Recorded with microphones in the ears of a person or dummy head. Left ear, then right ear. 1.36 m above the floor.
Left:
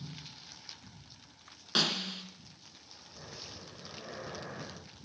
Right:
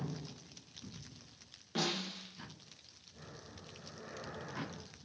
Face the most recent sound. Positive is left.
turn(degrees=25)  # may be behind; listen again after turning